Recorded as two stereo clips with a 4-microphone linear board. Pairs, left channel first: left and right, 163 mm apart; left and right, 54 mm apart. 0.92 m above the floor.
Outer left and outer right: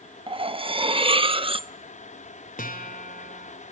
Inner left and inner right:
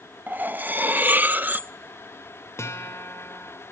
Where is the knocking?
I don't hear knocking.